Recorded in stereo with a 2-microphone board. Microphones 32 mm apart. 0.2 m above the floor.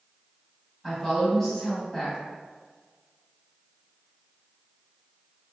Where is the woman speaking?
10° left (ahead or behind), 1.0 m.